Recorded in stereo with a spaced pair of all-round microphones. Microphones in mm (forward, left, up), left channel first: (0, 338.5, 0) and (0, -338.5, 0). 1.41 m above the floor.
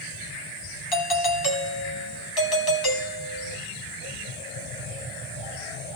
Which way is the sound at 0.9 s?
35° left (ahead or behind).